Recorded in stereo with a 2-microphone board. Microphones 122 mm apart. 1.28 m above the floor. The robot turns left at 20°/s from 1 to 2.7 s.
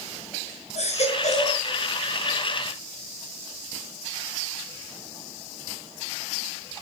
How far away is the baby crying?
About 5 m.